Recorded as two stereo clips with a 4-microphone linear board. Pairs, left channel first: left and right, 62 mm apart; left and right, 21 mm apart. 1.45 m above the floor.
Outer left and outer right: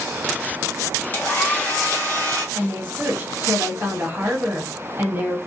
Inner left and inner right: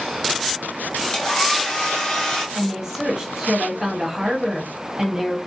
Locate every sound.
1.1 s a hair dryer: 30° left (ahead or behind), 1.2 m
2.5 s a woman speaking: 35° right (ahead or behind), 1.1 m